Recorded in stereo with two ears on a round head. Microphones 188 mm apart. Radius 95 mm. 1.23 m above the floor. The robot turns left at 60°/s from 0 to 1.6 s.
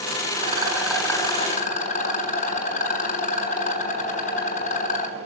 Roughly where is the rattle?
Behind right.